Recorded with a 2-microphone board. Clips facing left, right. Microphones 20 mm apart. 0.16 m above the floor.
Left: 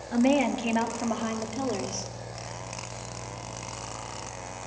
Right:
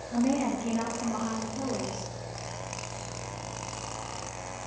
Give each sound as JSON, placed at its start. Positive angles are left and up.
{"t": 0.1, "sound": "a woman speaking", "side_deg": 45, "distance_m": 3.5}